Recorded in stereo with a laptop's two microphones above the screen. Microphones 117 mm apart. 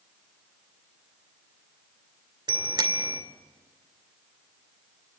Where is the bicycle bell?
40° right (ahead or behind), 2 m.